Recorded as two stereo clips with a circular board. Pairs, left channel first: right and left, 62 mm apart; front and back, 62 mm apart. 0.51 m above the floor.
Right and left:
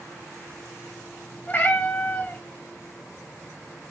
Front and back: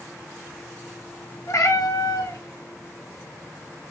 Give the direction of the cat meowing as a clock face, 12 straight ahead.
1 o'clock.